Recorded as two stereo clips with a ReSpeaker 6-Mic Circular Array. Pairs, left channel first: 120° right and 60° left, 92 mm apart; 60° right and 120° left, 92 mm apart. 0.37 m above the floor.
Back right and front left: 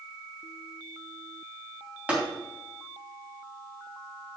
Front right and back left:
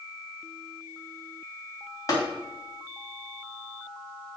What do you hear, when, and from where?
2.1 s tapping: 15° right, 3 m